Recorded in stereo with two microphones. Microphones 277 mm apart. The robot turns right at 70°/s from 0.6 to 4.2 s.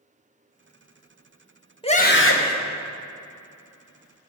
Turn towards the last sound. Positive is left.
turn(degrees=-175)